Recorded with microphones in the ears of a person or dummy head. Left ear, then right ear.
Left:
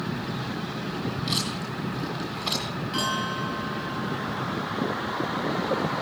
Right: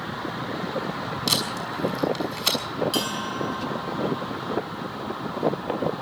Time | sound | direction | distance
1.3 | tape being pulled | 80° right | 5.5 m
2.9 | a bell | 65° right (ahead or behind) | 7.5 m